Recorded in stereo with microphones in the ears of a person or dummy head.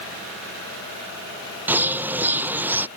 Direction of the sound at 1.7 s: 10° right (ahead or behind).